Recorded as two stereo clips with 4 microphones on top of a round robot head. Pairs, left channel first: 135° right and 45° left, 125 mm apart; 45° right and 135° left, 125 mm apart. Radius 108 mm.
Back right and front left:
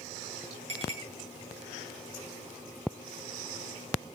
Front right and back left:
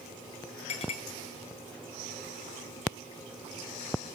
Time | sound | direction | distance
0.7 | a clink | straight ahead | 7.5 m